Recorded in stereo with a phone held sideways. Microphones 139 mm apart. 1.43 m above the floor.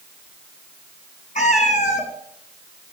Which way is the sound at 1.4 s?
60° left (ahead or behind).